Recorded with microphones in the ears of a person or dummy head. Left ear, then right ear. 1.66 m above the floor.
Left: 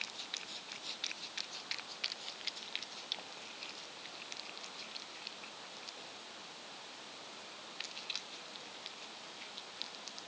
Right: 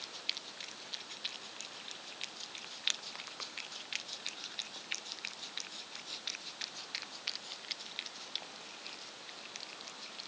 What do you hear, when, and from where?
Only background noise.